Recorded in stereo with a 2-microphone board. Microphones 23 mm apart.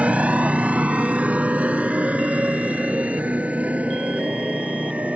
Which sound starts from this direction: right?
A motorcycle, at 0.0 s.